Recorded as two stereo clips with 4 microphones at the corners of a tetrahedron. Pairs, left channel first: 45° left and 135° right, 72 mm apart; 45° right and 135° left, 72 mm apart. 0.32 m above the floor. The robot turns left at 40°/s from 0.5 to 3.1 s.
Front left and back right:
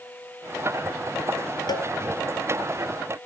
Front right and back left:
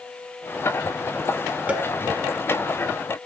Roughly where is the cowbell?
Ahead left.